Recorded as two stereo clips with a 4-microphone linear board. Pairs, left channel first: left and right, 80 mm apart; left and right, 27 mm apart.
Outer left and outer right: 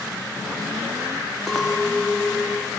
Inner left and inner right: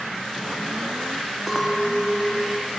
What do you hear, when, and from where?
1.5 s a clink: centre (ahead or behind), 0.9 m